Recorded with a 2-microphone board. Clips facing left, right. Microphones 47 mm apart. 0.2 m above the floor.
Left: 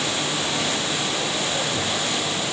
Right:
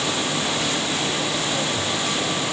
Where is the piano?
I don't hear a piano.